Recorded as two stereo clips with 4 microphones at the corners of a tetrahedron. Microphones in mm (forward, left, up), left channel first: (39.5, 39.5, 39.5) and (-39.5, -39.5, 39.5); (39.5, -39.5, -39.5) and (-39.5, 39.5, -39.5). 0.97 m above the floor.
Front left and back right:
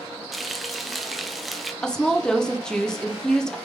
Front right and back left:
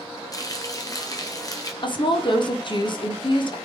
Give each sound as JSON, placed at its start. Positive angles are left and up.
{"t": 0.3, "sound": "frying", "azimuth_deg": -45, "distance_m": 0.5}
{"t": 1.8, "sound": "a woman speaking", "azimuth_deg": -40, "distance_m": 0.6}